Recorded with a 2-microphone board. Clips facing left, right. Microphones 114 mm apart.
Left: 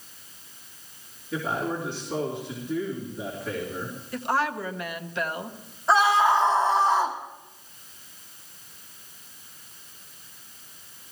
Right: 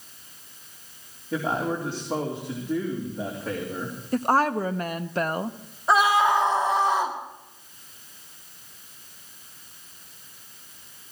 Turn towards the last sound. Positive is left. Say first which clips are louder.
# even
turn(degrees=-10)  # may be behind; listen again after turning